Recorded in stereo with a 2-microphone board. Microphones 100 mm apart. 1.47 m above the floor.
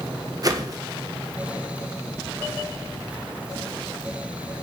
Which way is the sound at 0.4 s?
40° right (ahead or behind).